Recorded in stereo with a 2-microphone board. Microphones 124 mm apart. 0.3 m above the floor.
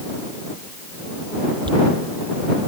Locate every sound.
1.7 s a dropped coin: 40° right (ahead or behind)